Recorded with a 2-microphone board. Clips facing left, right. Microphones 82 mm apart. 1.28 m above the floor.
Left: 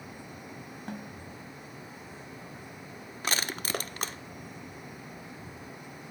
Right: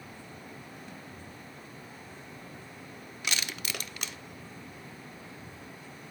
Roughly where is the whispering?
No whispering in this recording.